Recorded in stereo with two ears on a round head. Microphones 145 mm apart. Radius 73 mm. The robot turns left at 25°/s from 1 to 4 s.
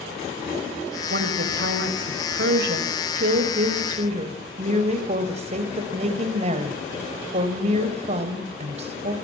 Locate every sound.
1.1 s a woman speaking: 65° right, 3 m; by 9.2 s 135° right, 3 m